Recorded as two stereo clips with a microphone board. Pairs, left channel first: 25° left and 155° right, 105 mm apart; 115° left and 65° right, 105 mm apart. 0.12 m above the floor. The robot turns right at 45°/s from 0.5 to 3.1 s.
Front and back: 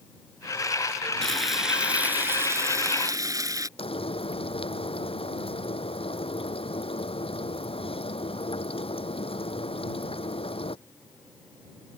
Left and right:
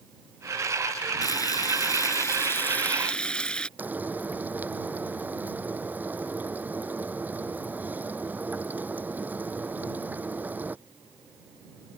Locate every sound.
1.2 s frying: 100° left; by 3.7 s 175° right
3.8 s frying: 5° left